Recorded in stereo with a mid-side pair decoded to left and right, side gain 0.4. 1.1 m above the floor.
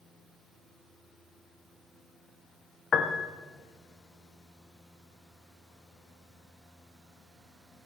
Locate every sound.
2.9 s a piano: 60° left, 1.1 m